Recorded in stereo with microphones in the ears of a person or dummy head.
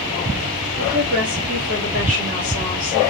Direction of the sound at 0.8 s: 45° right (ahead or behind).